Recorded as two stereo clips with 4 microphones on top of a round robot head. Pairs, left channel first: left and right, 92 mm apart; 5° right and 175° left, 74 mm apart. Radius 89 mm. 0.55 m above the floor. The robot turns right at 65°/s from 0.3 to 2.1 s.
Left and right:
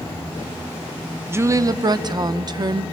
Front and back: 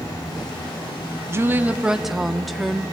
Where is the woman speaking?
145° right, 0.8 m; by 2.8 s 95° right, 0.8 m.